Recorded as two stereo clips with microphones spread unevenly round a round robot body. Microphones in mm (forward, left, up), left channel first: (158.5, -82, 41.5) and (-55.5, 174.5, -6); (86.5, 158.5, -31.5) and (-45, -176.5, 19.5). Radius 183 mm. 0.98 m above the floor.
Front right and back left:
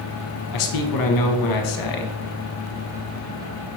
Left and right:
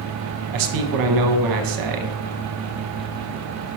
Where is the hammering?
I don't hear hammering.